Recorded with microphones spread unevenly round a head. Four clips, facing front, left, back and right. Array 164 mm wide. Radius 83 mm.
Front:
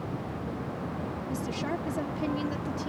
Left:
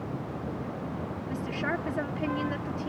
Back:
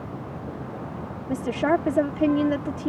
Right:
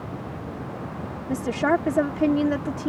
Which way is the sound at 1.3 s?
140° right.